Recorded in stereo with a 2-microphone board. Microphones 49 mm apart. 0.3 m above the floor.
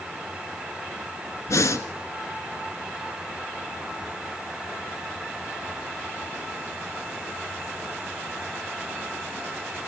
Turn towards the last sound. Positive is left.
turn(degrees=75)  # may be behind; listen again after turning